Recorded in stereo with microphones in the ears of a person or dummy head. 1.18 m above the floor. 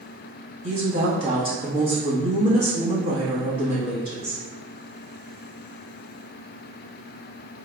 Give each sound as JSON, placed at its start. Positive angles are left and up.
{"t": 0.6, "sound": "a woman speaking", "side_deg": -55, "distance_m": 1.4}